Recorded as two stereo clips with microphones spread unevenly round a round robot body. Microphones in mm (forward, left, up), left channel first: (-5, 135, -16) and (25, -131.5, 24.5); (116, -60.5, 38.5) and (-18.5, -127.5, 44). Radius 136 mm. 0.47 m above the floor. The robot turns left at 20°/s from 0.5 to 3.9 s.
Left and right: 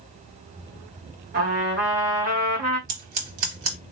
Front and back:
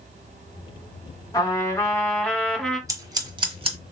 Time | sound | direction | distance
1.3 | a trumpet | 30° right | 1.4 m
2.9 | scissors | 85° right | 1.2 m